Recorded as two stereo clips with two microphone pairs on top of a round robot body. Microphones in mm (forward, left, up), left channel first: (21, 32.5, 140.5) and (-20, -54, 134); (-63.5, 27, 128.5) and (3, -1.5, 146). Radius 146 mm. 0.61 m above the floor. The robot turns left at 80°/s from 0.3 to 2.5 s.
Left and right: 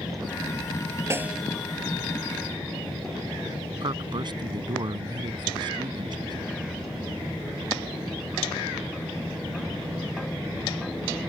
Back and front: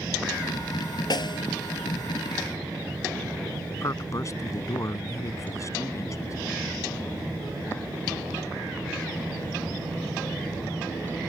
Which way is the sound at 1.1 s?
Straight behind.